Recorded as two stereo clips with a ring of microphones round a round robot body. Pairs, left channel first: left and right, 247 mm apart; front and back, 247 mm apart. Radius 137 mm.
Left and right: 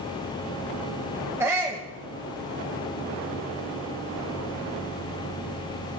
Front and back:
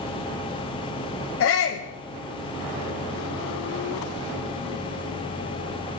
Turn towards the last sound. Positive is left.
turn(degrees=-10)